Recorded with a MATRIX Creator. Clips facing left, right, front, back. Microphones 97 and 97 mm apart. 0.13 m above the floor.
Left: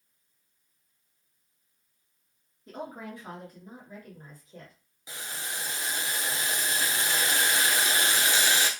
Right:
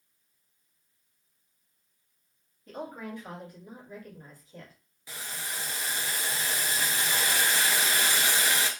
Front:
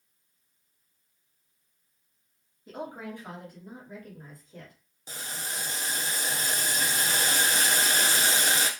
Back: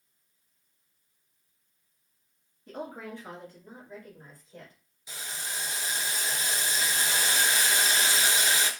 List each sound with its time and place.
2.7 s a woman speaking: 45° left, 2.0 m; by 4.8 s 100° left, 2 m
5.1 s boiling: 25° left, 0.6 m